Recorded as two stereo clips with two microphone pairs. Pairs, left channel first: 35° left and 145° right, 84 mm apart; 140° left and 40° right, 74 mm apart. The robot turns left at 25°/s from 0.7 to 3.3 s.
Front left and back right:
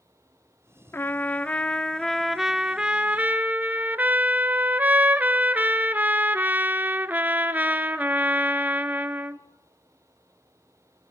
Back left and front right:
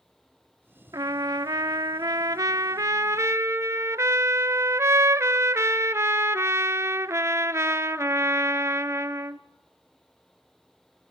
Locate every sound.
0.9 s a trumpet: 20° right, 0.7 m; by 9.4 s 80° right, 0.7 m